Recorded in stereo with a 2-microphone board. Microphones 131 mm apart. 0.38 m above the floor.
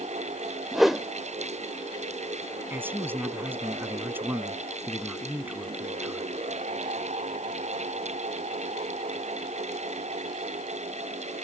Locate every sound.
0.7 s a whoosh: centre (ahead or behind)
2.7 s a man speaking: 15° right (ahead or behind)